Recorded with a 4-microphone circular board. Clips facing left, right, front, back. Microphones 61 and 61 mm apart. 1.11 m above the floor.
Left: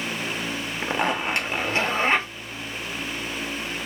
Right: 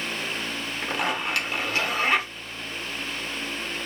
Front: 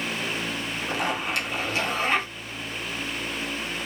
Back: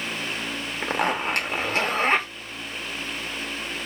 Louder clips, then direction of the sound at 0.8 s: Left 3 dB, back 4 dB; 150° left.